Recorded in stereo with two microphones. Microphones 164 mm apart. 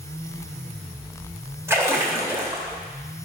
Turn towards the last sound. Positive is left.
turn(degrees=-15)  # may be behind; listen again after turning